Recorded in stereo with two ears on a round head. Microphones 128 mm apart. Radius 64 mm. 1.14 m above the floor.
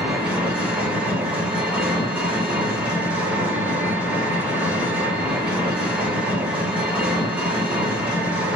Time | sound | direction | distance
0.0 | an engine running | 10° right (ahead or behind) | 1.6 m